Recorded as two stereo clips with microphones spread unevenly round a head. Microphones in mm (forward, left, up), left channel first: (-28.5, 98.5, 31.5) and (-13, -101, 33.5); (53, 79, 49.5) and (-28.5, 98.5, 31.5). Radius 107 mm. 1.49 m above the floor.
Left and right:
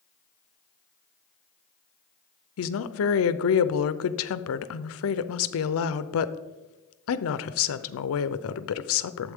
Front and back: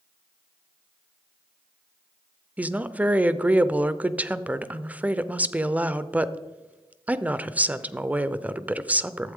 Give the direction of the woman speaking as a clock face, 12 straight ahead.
9 o'clock.